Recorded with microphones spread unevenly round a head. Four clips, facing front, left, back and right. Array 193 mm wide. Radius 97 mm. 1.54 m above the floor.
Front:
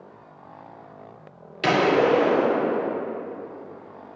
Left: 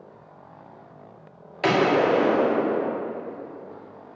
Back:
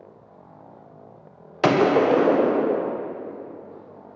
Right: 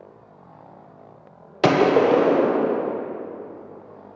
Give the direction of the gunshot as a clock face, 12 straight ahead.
3 o'clock.